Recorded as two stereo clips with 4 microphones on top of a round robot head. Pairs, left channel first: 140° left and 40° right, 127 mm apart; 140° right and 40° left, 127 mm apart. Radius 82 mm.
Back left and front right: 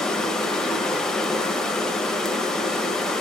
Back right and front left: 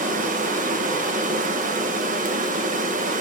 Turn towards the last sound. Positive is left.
turn(degrees=55)